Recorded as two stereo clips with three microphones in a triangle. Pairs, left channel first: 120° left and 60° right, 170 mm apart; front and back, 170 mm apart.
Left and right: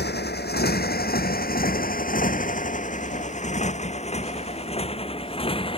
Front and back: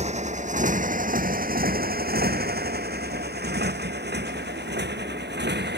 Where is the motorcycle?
130° left; by 5.8 s straight behind.